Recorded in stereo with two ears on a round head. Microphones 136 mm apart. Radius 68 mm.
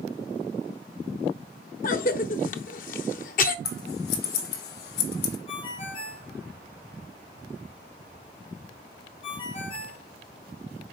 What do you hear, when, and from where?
1.8 s a cough: 60° left (ahead or behind), 0.7 m
3.6 s scissors: 75° left (ahead or behind), 1.7 m
5.5 s a ringtone: 40° left (ahead or behind), 1.8 m